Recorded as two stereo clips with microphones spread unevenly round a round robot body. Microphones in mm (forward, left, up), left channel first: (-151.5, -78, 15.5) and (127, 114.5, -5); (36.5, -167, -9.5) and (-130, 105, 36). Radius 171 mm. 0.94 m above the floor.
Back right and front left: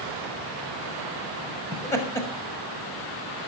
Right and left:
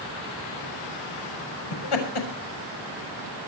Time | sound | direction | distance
1.7 | laughter | 65° right | 6 m